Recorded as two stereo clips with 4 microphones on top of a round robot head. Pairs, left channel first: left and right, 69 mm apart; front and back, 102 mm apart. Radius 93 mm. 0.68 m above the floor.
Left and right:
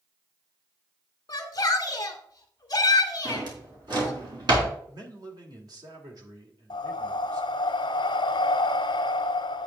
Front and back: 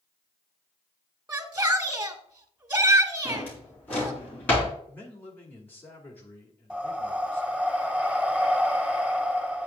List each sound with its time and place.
1.3 s a shout: 125° left, 1.3 m
3.2 s a drawer: 75° right, 3.5 m
4.9 s a man speaking: 70° right, 2.5 m
6.7 s breathing: 100° left, 0.6 m